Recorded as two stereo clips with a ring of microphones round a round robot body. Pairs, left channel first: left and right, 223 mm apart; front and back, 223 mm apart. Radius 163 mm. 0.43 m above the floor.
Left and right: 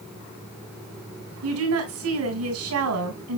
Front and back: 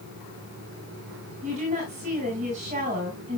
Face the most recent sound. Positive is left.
turn(degrees=-115)